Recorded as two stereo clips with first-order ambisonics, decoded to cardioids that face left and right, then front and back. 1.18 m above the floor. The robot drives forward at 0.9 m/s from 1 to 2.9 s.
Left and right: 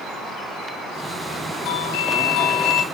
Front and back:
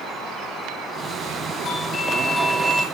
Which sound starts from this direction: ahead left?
A doorbell, at 1.6 s.